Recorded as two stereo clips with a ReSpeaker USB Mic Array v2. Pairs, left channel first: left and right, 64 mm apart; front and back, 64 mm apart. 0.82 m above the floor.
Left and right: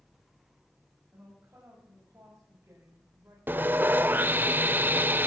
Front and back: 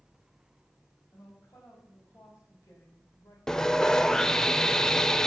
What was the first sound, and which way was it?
A woman speaking, 35° right.